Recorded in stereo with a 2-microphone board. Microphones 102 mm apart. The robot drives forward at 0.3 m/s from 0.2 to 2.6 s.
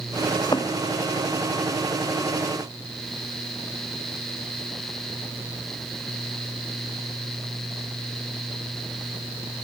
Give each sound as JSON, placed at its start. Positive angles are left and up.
{"t": 0.3, "sound": "a thud", "side_deg": 40}